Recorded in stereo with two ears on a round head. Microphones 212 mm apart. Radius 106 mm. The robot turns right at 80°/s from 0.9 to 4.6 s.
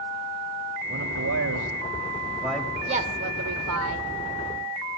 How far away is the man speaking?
About 3.5 m.